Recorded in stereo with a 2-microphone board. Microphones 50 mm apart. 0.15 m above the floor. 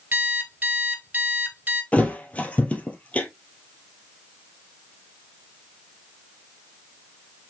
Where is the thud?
25° left (ahead or behind), 1.5 m.